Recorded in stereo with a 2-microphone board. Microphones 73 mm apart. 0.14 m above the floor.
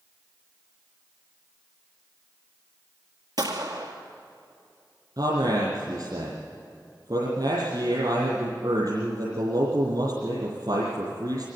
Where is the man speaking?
60° right (ahead or behind), 4.5 m.